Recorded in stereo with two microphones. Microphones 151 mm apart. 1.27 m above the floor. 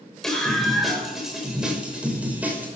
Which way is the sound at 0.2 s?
Centre (ahead or behind).